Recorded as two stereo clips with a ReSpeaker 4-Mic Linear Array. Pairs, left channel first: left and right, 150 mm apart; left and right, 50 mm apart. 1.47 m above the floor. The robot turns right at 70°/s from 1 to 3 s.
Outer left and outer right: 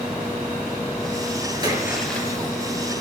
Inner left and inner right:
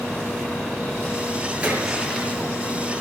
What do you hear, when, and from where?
1.6 s a splash: 30° right, 6 m; by 2.4 s 25° left, 6 m